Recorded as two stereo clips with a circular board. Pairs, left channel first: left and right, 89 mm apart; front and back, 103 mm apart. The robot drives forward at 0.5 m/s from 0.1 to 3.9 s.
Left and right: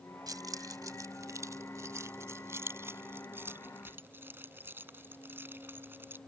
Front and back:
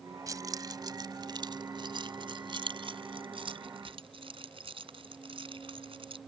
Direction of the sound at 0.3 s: 130° right.